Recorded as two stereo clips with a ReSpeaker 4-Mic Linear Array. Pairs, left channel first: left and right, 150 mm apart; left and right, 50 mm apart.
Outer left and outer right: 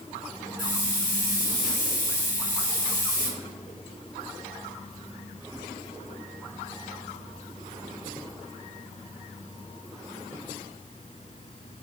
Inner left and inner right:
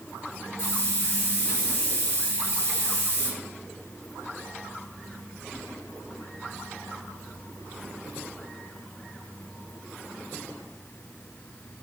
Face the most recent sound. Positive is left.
turn(degrees=65)  # may be behind; listen again after turning